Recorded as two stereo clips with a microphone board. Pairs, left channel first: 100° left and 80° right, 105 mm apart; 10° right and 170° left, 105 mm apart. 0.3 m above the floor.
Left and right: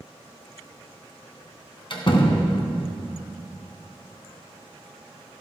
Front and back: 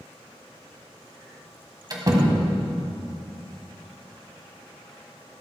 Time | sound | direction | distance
1.9 | a door slam | 130° left | 1.8 m